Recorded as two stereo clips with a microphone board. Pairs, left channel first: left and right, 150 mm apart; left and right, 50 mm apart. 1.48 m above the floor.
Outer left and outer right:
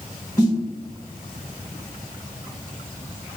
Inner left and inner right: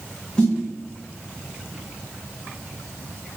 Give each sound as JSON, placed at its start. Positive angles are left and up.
{"t": 0.4, "sound": "a snare drum", "side_deg": 20, "distance_m": 1.8}